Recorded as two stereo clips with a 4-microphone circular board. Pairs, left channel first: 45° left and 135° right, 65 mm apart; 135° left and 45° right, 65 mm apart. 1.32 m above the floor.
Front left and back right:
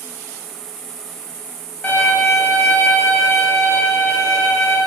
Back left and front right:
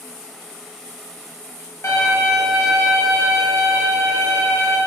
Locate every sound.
1.8 s a violin: 110° left, 1.8 m